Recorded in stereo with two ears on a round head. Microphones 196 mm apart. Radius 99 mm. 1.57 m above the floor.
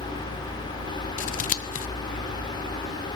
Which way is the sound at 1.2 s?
40° left (ahead or behind).